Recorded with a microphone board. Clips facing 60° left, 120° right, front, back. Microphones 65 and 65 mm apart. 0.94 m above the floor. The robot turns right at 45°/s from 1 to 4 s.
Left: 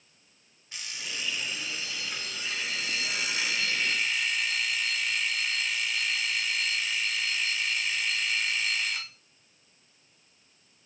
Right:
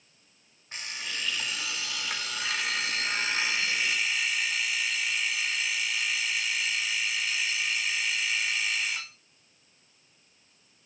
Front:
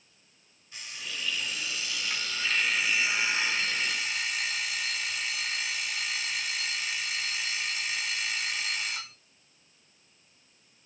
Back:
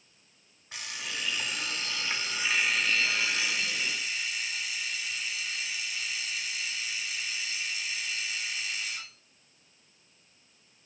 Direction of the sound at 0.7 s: 170° right.